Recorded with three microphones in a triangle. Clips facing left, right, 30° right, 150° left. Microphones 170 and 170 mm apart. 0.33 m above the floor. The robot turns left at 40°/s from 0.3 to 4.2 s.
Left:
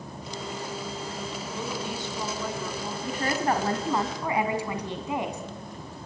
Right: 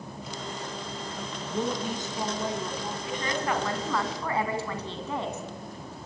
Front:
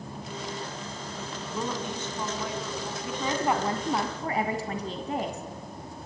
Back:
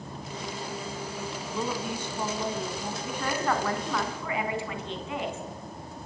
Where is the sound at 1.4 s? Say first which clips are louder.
Right 7 dB, even; 110° right, 3 m; by 2.9 s 170° right, 3 m.